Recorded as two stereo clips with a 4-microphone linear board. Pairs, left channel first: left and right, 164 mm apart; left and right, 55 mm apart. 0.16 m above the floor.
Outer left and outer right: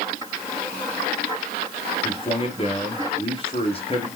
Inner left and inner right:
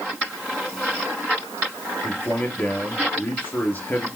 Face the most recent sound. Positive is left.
turn(degrees=35)  # may be behind; listen again after turning